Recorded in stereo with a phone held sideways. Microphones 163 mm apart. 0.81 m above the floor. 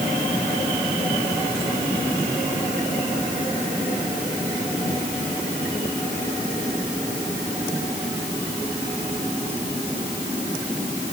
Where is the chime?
I don't hear a chime.